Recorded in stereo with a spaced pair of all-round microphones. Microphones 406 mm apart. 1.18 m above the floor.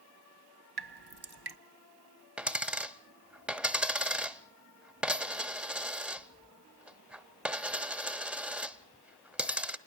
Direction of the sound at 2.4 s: Centre (ahead or behind).